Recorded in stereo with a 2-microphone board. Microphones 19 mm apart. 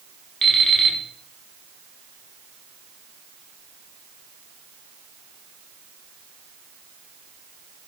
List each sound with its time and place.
0.4 s an alarm clock: 30° left (ahead or behind), 1.0 m